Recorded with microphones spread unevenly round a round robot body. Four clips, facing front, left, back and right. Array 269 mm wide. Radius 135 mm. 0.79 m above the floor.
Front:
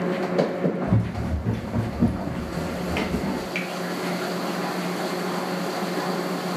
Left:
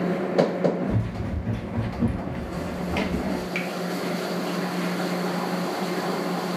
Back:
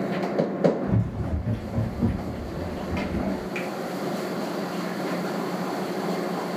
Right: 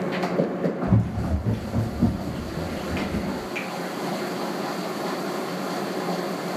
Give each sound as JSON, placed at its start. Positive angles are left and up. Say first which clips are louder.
{"t": 0.9, "sound": "running footsteps", "louder": "right 4 dB, front 2 dB", "azimuth_deg": -55, "distance_m": 1.2}
{"t": 3.5, "sound": "a finger snap", "louder": "left 2 dB, even", "azimuth_deg": 120, "distance_m": 0.8}